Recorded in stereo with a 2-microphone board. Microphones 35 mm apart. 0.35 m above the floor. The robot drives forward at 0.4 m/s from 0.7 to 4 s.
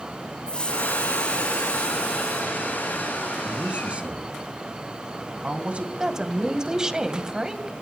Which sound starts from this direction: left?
A hiss, at 0.5 s.